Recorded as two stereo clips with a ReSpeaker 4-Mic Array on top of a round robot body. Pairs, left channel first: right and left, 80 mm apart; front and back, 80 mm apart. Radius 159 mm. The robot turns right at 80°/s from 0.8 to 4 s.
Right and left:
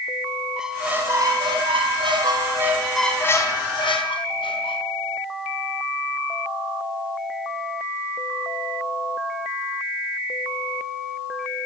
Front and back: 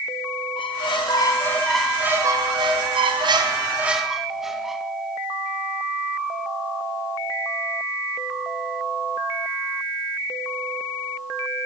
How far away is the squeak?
About 4 m.